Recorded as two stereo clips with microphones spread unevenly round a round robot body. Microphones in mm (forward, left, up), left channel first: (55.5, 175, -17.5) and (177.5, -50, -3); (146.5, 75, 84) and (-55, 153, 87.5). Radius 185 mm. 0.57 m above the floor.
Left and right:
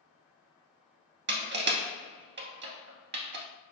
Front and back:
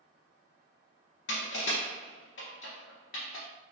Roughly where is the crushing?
Ahead right.